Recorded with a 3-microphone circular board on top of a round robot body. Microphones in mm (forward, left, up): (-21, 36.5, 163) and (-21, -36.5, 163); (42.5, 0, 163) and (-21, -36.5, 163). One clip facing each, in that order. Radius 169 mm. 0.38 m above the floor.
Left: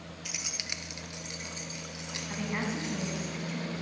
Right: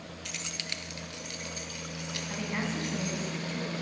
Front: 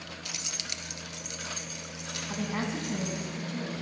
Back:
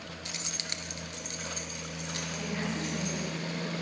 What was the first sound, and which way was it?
Keys jangling, 170° left.